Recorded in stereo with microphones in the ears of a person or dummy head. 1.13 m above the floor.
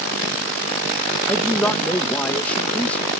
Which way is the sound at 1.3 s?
5° left (ahead or behind).